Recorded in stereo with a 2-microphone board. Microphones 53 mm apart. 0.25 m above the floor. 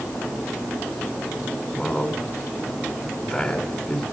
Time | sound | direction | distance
1.8 | a man speaking | 10° left (ahead or behind) | 2.5 m